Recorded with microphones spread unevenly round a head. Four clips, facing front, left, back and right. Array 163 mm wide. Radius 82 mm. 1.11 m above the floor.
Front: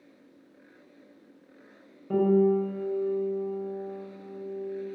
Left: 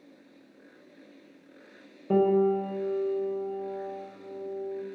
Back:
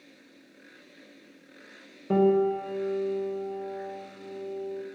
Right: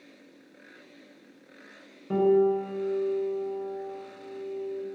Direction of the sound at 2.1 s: 120° left.